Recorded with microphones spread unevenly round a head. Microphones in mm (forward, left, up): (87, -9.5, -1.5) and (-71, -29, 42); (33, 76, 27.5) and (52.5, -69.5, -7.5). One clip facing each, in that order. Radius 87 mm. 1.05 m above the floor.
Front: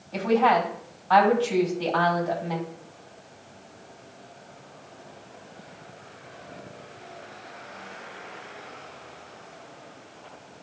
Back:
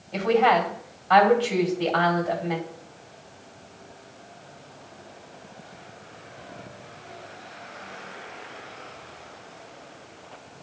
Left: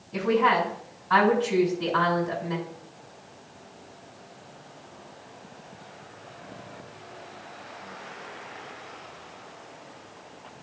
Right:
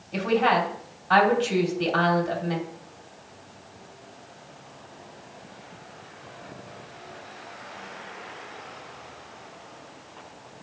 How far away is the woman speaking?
About 3.5 m.